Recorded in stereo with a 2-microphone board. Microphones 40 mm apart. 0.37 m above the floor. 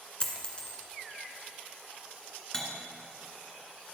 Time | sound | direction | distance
0.2 | a dropped coin | 30° left (ahead or behind) | 1.7 m
2.5 | cutlery clinking | 20° left (ahead or behind) | 2.5 m